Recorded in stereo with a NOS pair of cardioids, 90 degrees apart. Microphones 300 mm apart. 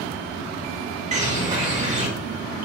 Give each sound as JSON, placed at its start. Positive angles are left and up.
{"t": 1.1, "sound": "a bird", "azimuth_deg": -25, "distance_m": 1.2}